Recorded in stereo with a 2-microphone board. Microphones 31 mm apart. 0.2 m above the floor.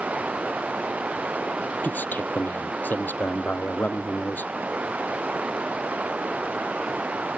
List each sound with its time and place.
0.0 s running water: 50° right (ahead or behind)
1.8 s a man speaking: 80° left